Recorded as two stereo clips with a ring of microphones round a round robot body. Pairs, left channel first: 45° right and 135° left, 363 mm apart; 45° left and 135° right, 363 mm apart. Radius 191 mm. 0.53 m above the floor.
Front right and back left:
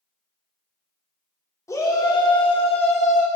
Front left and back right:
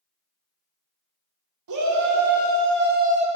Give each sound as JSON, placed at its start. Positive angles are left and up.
{"t": 1.7, "sound": "a shout", "azimuth_deg": -125, "distance_m": 2.0}